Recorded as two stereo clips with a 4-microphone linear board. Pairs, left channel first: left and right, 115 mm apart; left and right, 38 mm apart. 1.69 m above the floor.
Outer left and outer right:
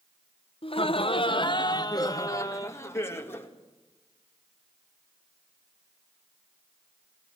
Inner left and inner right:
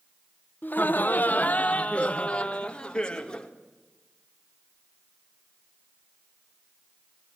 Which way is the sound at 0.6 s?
50° left (ahead or behind).